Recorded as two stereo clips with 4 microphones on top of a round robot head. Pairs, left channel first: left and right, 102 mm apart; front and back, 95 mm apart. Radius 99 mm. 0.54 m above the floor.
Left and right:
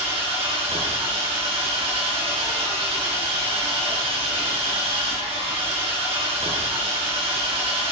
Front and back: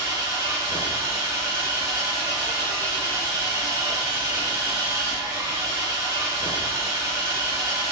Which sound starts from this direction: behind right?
An engine running, at 0.0 s.